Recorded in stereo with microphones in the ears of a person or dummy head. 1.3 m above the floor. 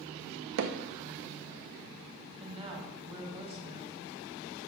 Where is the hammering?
60° right (ahead or behind), 0.5 m.